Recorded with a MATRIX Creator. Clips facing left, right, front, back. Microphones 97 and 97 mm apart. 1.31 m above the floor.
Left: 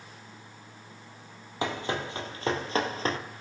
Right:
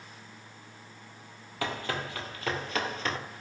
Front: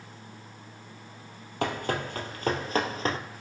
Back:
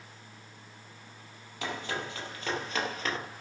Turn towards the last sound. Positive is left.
turn(degrees=45)